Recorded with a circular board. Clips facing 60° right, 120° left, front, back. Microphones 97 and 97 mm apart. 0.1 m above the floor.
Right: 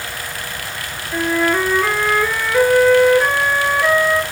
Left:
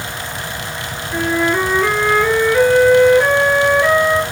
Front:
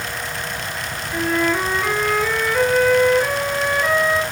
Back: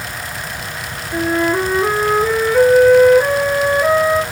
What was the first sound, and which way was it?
A flute, 155° right.